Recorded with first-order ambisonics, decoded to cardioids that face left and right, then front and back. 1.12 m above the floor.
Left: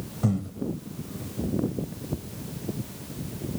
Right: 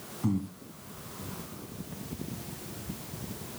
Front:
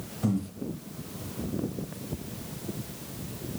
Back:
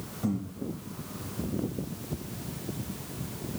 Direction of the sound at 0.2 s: 80° left.